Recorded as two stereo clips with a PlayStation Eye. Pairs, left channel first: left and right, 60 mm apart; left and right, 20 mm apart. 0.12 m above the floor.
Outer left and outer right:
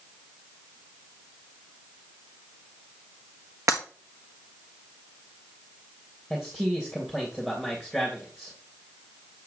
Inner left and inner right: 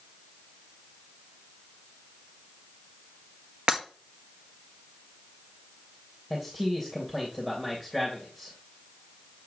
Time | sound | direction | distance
3.7 | breaking glass | 60° right (ahead or behind) | 1.6 m
6.3 | a man speaking | 10° right (ahead or behind) | 3 m